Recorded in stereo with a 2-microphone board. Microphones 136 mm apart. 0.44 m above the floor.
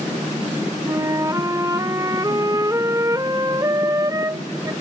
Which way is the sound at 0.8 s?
25° right (ahead or behind).